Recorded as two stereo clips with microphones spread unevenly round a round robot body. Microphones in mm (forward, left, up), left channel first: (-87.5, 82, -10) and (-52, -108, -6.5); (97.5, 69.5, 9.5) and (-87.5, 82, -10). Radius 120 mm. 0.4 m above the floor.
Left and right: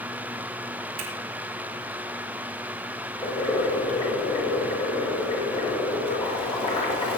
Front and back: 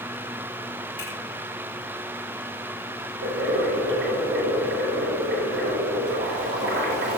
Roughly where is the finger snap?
Right.